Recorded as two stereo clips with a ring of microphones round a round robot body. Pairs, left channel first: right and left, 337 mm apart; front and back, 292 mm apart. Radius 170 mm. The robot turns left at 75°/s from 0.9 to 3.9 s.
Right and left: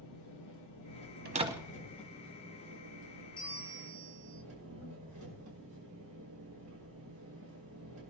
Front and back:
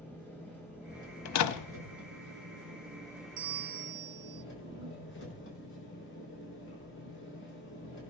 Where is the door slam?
30° left, 0.9 m; by 1.8 s 10° right, 0.9 m.